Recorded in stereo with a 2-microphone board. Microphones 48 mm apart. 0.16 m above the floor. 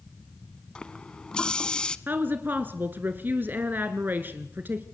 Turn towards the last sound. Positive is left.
turn(degrees=-45)  # may be behind; listen again after turning